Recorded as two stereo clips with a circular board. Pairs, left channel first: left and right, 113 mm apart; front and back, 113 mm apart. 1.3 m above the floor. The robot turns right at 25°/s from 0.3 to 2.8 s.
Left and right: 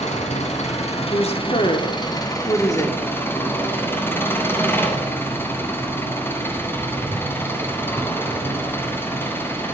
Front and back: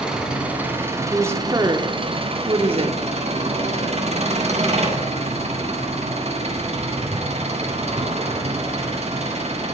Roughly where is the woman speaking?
Left.